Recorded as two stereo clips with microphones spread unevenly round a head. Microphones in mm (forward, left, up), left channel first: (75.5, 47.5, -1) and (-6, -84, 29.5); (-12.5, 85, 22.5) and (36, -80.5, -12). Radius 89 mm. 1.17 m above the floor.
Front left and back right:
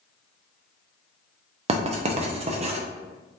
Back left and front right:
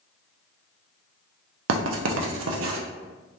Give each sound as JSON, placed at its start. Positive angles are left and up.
{"t": 1.7, "sound": "writing", "azimuth_deg": -85, "distance_m": 0.6}